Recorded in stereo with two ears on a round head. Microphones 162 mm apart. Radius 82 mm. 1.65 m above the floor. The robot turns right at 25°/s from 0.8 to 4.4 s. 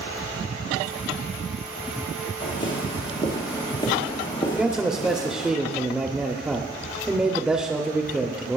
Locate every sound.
2.4 s footsteps: 30° left (ahead or behind), 2.5 m; by 5.5 s 40° left (ahead or behind), 2.5 m
4.5 s a man speaking: 5° right (ahead or behind), 0.6 m